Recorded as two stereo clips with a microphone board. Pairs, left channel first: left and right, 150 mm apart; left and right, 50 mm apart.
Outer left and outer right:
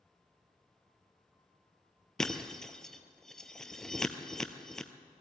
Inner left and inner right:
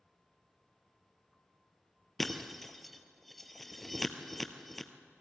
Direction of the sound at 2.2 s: 5° left (ahead or behind).